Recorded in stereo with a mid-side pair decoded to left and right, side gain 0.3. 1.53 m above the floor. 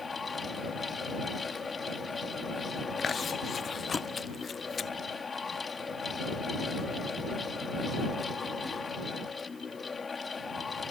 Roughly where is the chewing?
Ahead left.